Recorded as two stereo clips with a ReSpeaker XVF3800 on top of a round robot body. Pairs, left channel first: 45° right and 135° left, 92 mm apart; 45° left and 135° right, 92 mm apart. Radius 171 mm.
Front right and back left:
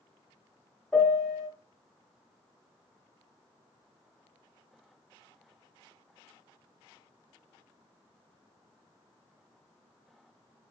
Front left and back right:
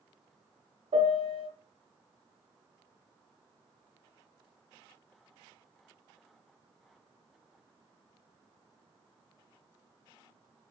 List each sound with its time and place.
0.9 s a piano: 125° right, 0.8 m